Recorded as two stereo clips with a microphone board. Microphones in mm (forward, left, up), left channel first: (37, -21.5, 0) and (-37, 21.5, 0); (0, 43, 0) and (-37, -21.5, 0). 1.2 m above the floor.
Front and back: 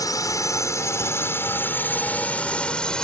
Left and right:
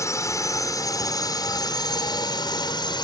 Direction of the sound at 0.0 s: 15° left.